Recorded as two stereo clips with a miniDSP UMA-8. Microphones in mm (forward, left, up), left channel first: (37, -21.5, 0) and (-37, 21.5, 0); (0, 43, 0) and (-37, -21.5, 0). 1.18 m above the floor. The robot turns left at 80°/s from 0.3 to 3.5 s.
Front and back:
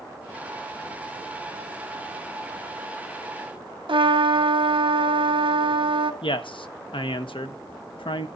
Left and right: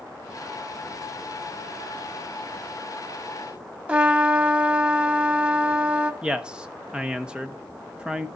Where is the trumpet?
170° left, 0.8 m.